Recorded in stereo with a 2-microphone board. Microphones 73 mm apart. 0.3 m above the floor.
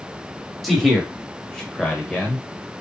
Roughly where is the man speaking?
Centre.